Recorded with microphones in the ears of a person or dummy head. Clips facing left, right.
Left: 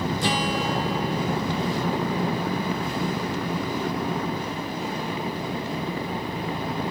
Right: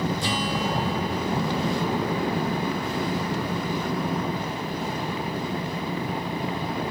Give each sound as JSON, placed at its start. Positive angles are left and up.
{"t": 0.2, "sound": "a guitar", "side_deg": 50, "distance_m": 1.7}